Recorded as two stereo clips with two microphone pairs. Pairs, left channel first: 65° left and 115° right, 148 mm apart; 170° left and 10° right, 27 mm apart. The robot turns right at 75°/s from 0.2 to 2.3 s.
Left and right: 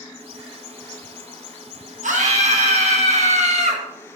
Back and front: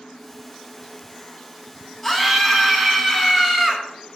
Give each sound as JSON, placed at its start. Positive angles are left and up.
{"t": 2.0, "sound": "a scream", "azimuth_deg": -105, "distance_m": 2.5}